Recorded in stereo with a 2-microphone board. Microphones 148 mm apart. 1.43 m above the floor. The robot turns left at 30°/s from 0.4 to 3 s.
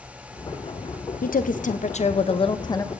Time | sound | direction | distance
1.2 | a woman speaking | 75° left | 0.7 m